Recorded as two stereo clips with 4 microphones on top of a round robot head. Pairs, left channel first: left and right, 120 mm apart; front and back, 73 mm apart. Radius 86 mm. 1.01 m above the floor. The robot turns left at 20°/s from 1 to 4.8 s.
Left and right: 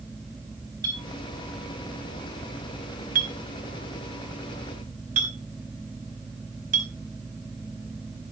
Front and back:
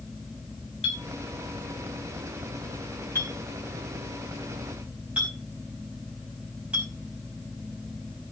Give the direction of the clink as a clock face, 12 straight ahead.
1 o'clock.